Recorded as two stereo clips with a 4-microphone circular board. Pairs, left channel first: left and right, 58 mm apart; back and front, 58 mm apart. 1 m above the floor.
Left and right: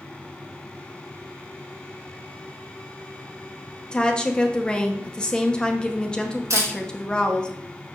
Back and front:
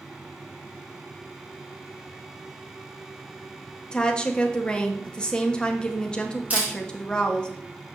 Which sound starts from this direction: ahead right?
A camera shutter, at 6.5 s.